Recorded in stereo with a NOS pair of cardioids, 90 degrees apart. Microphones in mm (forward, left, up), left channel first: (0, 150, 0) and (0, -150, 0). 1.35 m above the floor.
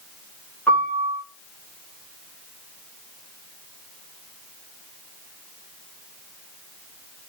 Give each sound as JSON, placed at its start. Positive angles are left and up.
{"t": 0.7, "sound": "a piano", "azimuth_deg": 5, "distance_m": 1.7}